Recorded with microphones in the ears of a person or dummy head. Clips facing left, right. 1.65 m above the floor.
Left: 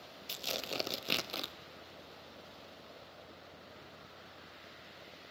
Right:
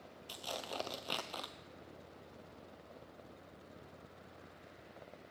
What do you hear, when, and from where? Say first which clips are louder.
0.3 s tearing paper: left 3 dB; 25° left (ahead or behind), 0.6 m